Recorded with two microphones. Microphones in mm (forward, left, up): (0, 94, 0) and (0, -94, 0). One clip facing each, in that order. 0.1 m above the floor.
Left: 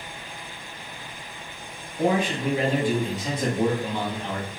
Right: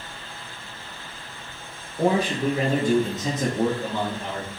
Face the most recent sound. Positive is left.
turn(degrees=-45)  # may be behind; listen again after turning